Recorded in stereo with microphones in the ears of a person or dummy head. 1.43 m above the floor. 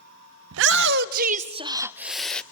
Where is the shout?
70° right (ahead or behind), 1.0 m; by 2.4 s 10° left (ahead or behind), 0.9 m.